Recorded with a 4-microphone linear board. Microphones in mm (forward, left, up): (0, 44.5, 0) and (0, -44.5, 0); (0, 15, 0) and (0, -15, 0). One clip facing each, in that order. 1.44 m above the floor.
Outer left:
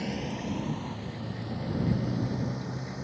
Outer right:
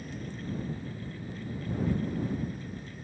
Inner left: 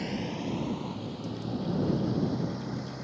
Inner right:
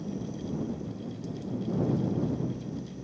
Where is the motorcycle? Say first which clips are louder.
Outer left 6 dB, inner left 3 dB; 80° left.